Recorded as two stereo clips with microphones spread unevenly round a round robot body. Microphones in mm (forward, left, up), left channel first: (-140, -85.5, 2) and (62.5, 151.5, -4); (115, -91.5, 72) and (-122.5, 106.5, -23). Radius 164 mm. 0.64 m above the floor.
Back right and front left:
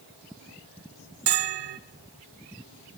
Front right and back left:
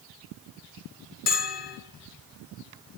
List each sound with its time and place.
1.3 s a bell: 25° left, 0.8 m